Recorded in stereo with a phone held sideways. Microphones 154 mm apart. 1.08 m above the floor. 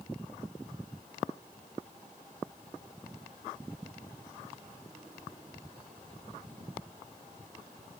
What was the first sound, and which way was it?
Only background noise.